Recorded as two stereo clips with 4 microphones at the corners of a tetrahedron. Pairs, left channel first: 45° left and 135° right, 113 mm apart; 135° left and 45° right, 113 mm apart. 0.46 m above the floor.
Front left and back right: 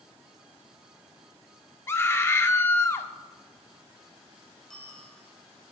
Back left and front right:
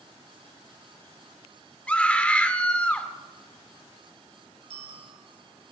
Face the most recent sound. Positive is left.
turn(degrees=-40)